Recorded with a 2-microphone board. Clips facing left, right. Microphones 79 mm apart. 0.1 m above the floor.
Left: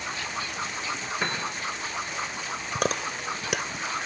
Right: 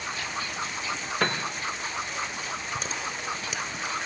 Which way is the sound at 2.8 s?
65° left (ahead or behind).